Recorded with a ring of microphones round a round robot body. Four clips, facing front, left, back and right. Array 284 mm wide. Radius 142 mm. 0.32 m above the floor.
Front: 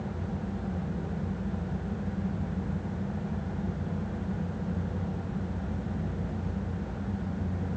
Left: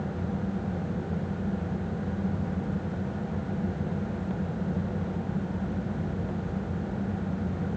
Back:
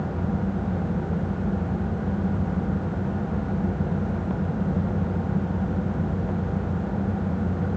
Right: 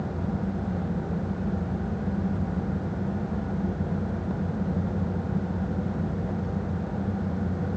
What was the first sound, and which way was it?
Only background noise.